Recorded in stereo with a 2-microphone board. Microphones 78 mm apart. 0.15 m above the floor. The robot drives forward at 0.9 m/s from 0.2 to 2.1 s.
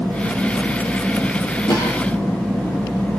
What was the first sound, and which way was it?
A cough, 55° left (ahead or behind).